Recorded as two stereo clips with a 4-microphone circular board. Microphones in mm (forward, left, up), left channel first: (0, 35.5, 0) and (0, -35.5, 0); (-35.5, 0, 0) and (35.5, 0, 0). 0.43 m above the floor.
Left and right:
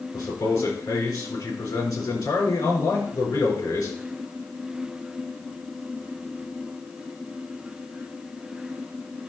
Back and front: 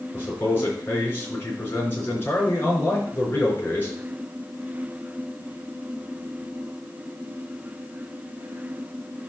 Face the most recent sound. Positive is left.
turn(degrees=120)